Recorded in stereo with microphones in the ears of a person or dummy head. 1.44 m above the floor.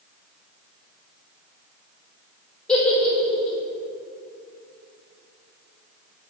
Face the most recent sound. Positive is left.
turn(degrees=5)  # may be behind; listen again after turning